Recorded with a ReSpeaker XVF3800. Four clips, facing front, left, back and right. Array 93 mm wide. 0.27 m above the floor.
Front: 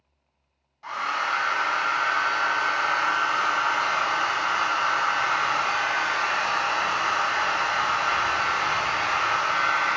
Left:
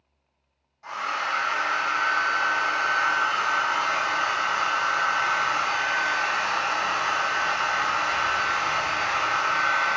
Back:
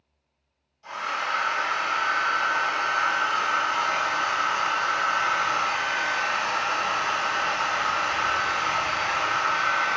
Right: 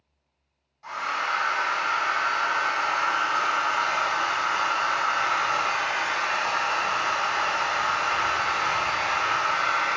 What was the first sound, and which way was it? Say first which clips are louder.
A hair dryer: even, front 2 dB; 5° left.